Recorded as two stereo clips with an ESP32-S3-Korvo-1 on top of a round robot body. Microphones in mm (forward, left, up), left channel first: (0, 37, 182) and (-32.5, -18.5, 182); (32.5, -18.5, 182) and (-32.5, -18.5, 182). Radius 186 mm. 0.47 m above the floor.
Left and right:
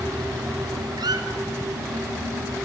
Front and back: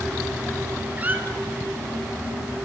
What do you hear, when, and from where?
1.0 s a squeak: 115° right, 1.7 m